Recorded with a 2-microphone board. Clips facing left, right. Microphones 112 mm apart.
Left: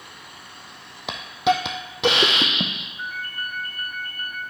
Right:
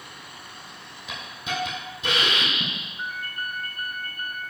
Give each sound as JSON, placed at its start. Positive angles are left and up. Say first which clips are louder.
{"t": 1.1, "sound": "a hiss", "louder": "left 12 dB", "side_deg": 85, "distance_m": 1.1}
{"t": 3.0, "sound": "a ringtone", "louder": "left 1 dB", "side_deg": -65, "distance_m": 4.0}